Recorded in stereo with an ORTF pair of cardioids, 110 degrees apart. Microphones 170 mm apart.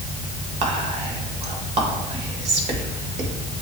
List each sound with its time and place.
0.6 s whispering: 40° right, 1.6 m